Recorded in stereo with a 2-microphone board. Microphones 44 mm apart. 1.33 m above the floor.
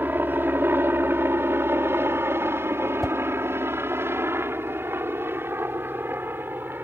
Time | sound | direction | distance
0.0 | a helicopter | 50° right (ahead or behind) | ?
3.0 | a whoosh | 5° left (ahead or behind) | ?